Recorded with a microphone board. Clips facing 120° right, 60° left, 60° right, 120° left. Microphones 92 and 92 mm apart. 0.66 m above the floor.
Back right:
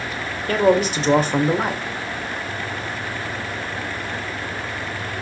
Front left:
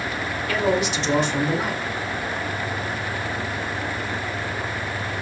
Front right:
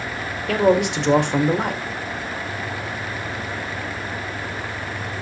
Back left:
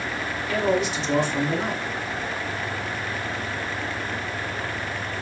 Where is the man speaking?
75° right, 1.8 m.